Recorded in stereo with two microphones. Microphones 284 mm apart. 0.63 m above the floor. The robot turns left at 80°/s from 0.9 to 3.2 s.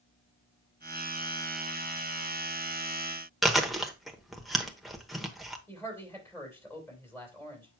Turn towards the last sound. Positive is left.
turn(degrees=10)  # may be behind; listen again after turning